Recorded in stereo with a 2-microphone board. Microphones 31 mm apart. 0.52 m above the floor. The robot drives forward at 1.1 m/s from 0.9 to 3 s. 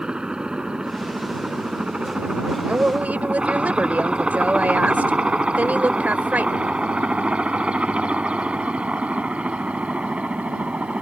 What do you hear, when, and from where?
0.0 s a helicopter: 25° right (ahead or behind); by 11.0 s 45° right (ahead or behind)
2.7 s a woman speaking: 50° right (ahead or behind); by 6.7 s 60° right (ahead or behind)